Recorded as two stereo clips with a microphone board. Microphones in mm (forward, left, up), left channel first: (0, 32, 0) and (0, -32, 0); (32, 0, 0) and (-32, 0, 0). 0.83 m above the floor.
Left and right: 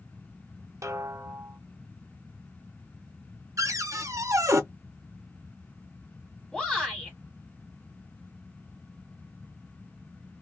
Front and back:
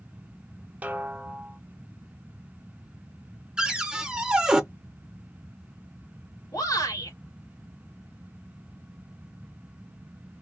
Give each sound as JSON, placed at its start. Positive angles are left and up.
{"t": 0.8, "sound": "a snare drum", "azimuth_deg": -115, "distance_m": 0.6}
{"t": 3.6, "sound": "a cupboard door", "azimuth_deg": -105, "distance_m": 0.6}
{"t": 6.5, "sound": "a shout", "azimuth_deg": 5, "distance_m": 1.4}